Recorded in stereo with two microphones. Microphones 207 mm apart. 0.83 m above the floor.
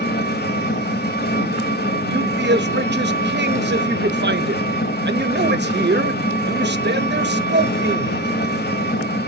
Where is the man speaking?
55° right (ahead or behind), 0.6 m.